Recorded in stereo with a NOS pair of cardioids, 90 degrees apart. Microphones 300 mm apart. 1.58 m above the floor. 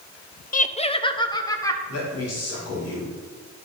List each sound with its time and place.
0.5 s laughter: 30° left, 0.7 m; by 1.8 s 10° left, 1.9 m
1.9 s a man speaking: 55° left, 4 m